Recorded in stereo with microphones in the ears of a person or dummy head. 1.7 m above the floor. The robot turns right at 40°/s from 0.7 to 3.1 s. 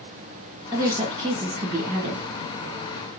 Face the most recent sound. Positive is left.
turn(degrees=-60)